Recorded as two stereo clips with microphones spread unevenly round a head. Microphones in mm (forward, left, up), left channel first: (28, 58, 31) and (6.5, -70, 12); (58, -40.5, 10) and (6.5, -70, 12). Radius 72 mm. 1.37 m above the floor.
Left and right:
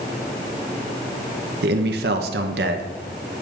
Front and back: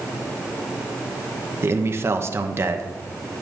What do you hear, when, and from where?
1.6 s a man speaking: 105° right, 1.0 m